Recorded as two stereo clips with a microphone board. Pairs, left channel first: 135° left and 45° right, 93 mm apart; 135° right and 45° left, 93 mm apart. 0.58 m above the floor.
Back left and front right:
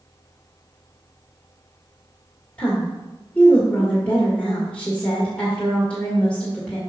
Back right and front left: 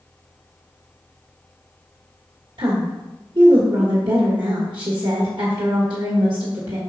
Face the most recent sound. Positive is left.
turn(degrees=60)